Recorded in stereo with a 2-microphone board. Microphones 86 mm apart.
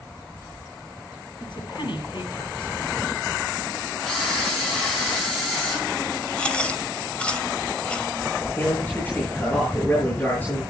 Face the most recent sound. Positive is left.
turn(degrees=20)  # may be behind; listen again after turning